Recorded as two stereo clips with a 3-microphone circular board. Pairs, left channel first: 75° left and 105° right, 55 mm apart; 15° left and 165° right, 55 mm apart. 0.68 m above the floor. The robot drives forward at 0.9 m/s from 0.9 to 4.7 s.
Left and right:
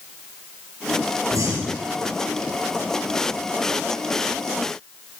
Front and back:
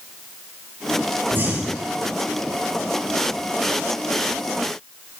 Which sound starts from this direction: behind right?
Breathing, at 1.3 s.